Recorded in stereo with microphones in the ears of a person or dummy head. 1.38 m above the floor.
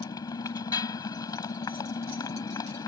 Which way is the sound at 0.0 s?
30° left (ahead or behind).